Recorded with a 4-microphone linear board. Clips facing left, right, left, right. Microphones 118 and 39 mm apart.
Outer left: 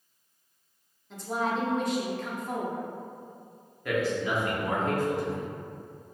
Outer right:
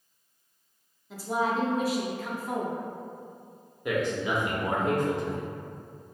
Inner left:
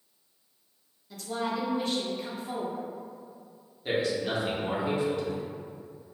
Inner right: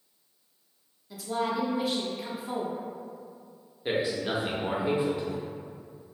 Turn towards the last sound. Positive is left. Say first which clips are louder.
# even, even
turn(degrees=-20)  # may be behind; listen again after turning